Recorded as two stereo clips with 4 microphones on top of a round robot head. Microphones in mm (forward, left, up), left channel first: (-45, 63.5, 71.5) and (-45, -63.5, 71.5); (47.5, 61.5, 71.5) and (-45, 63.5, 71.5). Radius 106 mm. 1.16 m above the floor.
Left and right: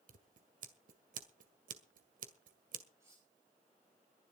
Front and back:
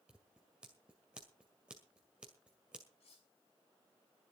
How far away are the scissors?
About 1.9 m.